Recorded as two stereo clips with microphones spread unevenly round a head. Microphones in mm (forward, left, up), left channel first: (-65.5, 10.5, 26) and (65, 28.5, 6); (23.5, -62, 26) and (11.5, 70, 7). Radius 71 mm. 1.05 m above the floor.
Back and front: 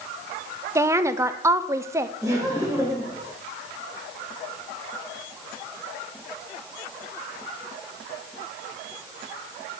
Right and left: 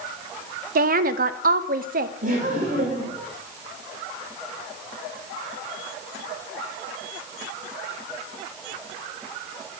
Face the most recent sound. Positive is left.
turn(degrees=85)